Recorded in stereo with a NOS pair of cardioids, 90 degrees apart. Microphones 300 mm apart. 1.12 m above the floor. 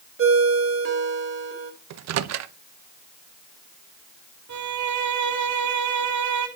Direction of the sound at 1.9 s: 60° right.